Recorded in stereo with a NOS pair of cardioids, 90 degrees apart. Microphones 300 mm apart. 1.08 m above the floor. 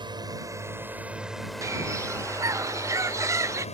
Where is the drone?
15° right; by 3.8 s 25° left.